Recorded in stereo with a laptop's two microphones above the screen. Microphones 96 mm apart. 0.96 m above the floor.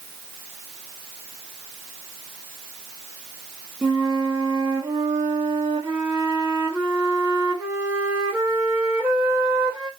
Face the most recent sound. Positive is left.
turn(degrees=-20)  # may be behind; listen again after turning